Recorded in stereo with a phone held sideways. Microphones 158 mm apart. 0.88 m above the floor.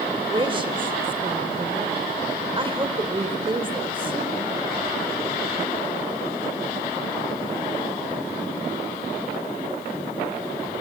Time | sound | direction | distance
0.3 | a woman speaking | 30° right (ahead or behind) | 3 m